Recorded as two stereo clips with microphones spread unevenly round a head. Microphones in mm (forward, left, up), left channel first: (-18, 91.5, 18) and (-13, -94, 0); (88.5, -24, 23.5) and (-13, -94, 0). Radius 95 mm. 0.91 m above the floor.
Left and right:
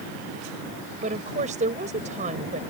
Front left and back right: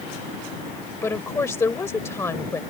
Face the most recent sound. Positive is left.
turn(degrees=-35)